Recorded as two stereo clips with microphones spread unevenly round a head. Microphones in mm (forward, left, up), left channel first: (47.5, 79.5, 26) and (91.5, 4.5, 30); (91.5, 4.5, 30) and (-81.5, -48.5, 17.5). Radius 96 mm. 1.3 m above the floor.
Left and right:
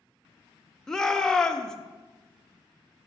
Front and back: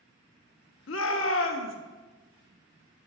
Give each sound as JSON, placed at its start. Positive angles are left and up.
{"t": 0.9, "sound": "a shout", "azimuth_deg": 35, "distance_m": 0.6}